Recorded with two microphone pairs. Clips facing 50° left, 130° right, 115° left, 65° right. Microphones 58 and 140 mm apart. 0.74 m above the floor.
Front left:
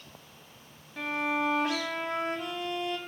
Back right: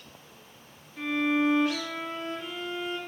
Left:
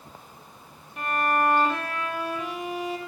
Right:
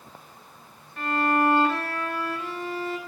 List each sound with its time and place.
1.0 s a violin: 40° left, 1.2 m